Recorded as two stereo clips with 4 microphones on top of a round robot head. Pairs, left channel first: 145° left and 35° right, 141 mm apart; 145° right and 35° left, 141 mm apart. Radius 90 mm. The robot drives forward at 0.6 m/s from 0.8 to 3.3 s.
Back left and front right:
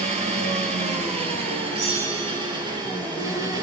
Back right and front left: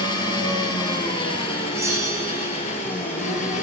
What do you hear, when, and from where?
0.0 s an engine running: 80° right, 4 m; by 3.6 s 105° right, 4 m
1.7 s a bell: 35° right, 8.5 m; by 2.6 s 40° right, 8 m